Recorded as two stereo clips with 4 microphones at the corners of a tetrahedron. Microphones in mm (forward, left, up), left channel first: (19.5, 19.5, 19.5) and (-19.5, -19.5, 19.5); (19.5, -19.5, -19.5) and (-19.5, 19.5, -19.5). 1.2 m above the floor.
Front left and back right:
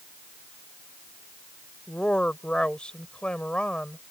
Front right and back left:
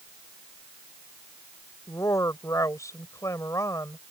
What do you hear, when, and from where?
1.9 s a woman speaking: 30° right